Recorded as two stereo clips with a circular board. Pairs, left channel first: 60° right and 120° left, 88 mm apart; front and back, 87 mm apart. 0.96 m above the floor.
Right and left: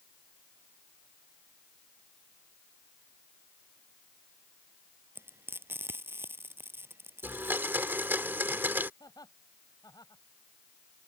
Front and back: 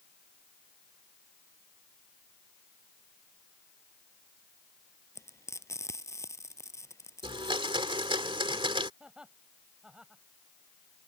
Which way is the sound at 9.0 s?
100° right.